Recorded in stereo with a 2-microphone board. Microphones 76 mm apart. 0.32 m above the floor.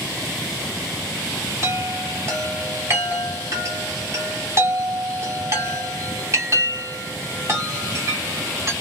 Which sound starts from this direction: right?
A chime, at 1.6 s.